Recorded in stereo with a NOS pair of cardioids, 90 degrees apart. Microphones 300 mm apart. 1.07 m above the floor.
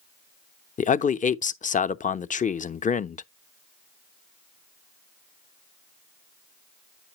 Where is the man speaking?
25° left, 0.5 m.